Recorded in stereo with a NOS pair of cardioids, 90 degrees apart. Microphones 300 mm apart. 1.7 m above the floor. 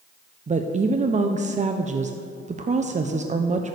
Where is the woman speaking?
25° right, 0.9 m.